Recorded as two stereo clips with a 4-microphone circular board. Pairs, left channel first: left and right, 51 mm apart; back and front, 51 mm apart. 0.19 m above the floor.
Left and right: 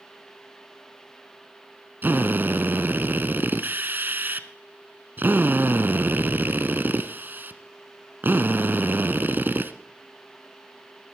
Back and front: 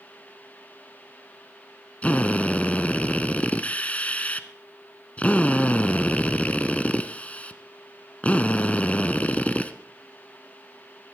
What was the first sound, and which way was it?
A drill, 125° right.